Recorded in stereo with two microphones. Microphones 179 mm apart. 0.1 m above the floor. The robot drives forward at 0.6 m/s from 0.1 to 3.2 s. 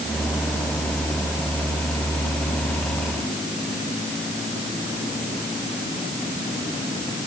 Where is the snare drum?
No snare drum in this recording.